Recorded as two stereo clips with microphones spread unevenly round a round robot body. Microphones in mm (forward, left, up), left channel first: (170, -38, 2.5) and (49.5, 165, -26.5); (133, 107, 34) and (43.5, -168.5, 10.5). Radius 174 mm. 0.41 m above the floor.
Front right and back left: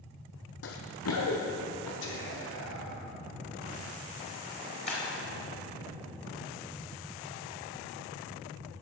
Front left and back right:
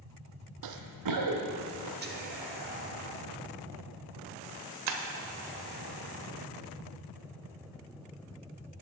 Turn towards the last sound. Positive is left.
turn(degrees=-135)